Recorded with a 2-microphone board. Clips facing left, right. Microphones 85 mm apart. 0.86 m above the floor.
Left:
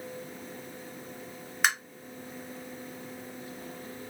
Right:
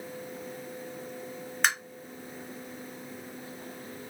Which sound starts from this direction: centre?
Tapping, at 1.6 s.